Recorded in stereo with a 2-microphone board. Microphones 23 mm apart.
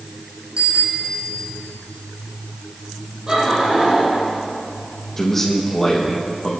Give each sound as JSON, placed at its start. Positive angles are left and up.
{"t": 0.6, "sound": "a bicycle bell", "side_deg": -60, "distance_m": 6.5}
{"t": 3.3, "sound": "laughter", "side_deg": -35, "distance_m": 7.5}
{"t": 5.2, "sound": "a man speaking", "side_deg": 10, "distance_m": 5.0}